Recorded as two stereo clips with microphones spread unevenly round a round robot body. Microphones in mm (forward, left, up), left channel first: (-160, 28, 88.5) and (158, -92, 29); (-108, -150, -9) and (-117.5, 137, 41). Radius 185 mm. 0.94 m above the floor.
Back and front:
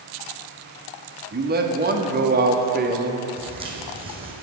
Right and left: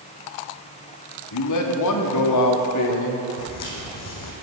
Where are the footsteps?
100° right, 3.5 m.